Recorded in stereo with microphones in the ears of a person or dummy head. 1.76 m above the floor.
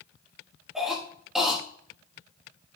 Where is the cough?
Centre (ahead or behind), 3.5 m.